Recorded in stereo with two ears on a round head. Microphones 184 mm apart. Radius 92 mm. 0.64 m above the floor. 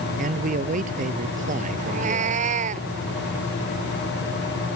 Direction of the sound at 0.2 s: 40° right (ahead or behind).